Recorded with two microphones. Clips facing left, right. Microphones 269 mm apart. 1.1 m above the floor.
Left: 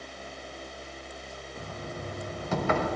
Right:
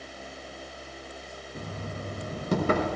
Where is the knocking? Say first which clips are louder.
Right 2 dB; 40° right (ahead or behind), 1.0 m.